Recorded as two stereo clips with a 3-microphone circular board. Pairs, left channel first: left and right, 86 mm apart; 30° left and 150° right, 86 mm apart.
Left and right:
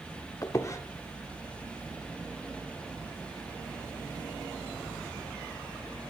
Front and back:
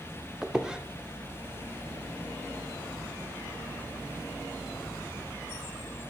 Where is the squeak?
130° left, 0.5 m.